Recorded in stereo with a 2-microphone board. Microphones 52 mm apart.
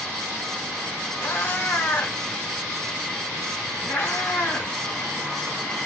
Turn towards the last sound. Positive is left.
turn(degrees=45)  # may be behind; listen again after turning